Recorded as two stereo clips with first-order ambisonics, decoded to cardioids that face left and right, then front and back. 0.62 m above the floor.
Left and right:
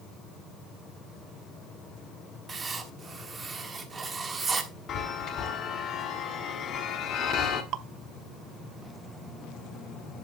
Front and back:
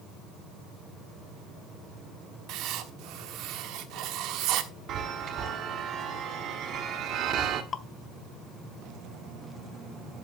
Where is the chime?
135° left, 1.3 m.